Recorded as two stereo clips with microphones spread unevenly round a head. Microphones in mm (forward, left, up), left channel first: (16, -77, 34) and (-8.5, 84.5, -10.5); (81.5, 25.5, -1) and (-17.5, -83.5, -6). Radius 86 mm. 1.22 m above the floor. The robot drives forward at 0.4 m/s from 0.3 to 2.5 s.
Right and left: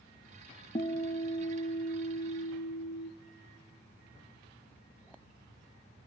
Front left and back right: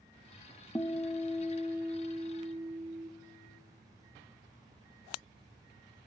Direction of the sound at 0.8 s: 25° right.